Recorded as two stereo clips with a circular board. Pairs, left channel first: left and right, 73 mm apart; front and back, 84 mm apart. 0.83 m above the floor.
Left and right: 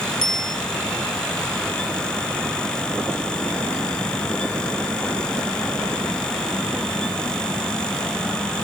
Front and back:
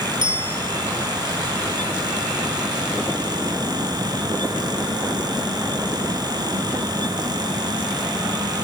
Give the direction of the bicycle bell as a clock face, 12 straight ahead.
6 o'clock.